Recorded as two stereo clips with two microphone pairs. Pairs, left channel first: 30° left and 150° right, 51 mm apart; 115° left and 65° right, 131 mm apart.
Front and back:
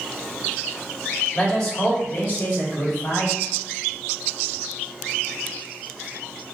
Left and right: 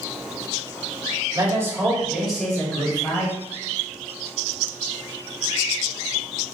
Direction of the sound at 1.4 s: 45° right.